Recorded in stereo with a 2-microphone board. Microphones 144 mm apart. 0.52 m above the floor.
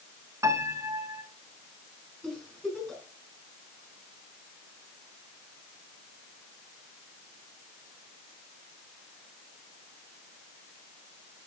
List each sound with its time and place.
0.4 s a piano: 25° right (ahead or behind), 1.0 m
2.2 s a giggle: 5° left (ahead or behind), 4.5 m